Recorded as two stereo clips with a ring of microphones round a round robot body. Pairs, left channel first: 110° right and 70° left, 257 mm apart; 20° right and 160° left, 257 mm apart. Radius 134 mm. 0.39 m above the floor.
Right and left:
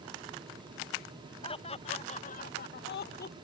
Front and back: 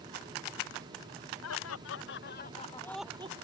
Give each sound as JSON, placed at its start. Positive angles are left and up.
{"t": 1.4, "sound": "laughter", "azimuth_deg": -45}